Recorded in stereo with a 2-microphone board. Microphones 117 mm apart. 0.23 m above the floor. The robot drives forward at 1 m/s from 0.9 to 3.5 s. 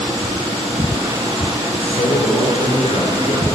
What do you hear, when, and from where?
1.7 s a man speaking: 65° left (ahead or behind), 2.5 m; by 3.5 s 55° left (ahead or behind), 2.5 m